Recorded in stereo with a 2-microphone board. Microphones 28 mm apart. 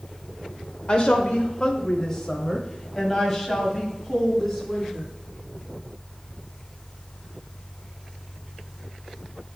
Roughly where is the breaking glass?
I don't hear breaking glass.